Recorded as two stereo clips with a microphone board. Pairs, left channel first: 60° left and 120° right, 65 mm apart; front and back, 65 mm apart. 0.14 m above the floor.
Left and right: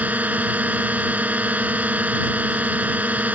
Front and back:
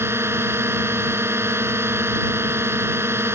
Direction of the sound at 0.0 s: 170° right.